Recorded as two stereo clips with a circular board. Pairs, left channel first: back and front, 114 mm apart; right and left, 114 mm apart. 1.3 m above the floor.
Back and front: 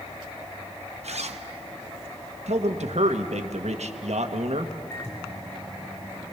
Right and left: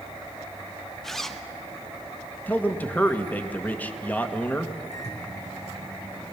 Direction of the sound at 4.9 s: 115° right.